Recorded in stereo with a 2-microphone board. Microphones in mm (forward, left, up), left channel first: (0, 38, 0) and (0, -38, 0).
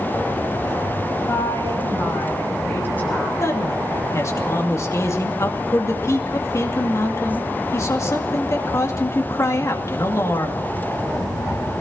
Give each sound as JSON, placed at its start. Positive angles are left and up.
{"t": 1.3, "sound": "a woman speaking", "side_deg": 40, "distance_m": 6.5}
{"t": 3.4, "sound": "a man speaking", "side_deg": 40, "distance_m": 2.5}